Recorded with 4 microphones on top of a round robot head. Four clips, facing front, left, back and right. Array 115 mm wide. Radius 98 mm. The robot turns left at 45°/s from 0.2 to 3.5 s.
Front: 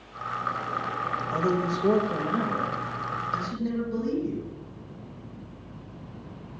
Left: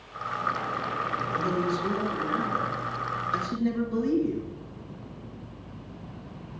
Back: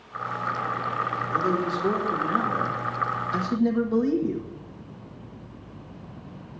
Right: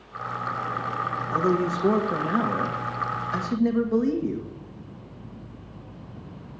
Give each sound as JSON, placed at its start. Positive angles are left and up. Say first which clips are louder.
{"t": 1.3, "sound": "a man speaking", "louder": "right 6 dB, back 1 dB", "azimuth_deg": -35, "distance_m": 1.9}